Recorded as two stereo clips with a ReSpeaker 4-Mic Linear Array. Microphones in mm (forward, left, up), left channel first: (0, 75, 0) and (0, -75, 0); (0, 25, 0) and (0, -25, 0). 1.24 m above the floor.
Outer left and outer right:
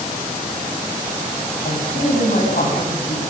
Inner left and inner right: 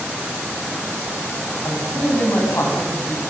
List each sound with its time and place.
1.6 s a man speaking: 65° left (ahead or behind), 8 m; by 3.2 s 70° left (ahead or behind), 8.5 m